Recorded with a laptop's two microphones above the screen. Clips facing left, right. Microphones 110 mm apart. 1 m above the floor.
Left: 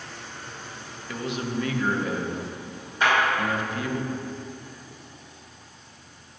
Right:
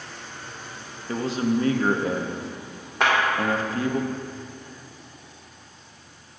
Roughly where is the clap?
Right.